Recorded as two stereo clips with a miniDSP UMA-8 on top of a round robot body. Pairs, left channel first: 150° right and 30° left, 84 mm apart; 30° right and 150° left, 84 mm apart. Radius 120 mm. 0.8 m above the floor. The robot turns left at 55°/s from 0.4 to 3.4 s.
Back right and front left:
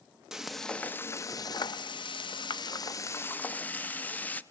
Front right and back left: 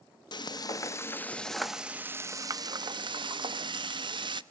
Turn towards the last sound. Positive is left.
turn(degrees=140)